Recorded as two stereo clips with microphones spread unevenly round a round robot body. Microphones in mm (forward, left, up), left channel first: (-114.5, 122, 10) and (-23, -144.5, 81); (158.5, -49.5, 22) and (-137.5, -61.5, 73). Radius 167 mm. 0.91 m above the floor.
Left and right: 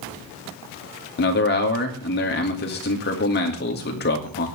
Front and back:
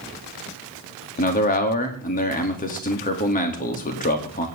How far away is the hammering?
No hammering in this recording.